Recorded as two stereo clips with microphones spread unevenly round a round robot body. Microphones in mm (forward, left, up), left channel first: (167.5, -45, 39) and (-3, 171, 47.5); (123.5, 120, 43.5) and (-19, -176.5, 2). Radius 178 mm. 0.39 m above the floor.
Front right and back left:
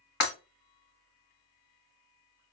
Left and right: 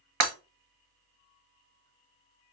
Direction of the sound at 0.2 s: 110° right.